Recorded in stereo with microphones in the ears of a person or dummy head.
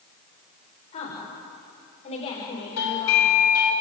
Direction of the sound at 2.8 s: 90° left.